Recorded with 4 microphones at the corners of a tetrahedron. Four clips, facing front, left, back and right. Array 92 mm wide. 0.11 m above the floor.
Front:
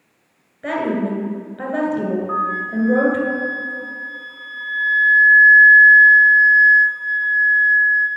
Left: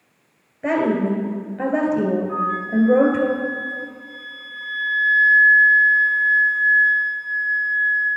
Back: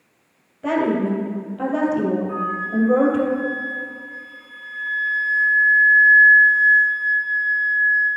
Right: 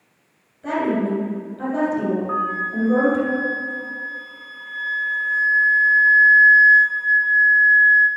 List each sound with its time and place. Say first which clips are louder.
0.6 s a woman speaking: left 2 dB, back 1 dB; 80° left, 2.5 m
2.3 s a flute: left 1 dB, front 2 dB; 60° right, 1.2 m